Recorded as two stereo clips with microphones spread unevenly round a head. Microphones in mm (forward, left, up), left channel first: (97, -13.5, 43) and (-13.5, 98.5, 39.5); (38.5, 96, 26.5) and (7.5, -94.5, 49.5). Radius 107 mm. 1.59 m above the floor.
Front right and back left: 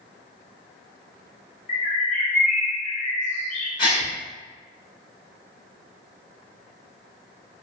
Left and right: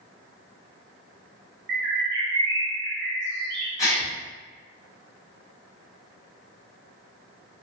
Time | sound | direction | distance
1.7 | a bird | 95° right | 0.5 m
3.8 | a gasp | 5° left | 1.3 m